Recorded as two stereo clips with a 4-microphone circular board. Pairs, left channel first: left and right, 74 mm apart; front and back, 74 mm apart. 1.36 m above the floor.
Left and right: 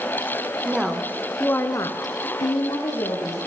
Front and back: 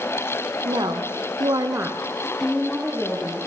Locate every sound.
0.7 s a woman speaking: 165° right, 0.9 m; by 3.5 s 65° left, 1.3 m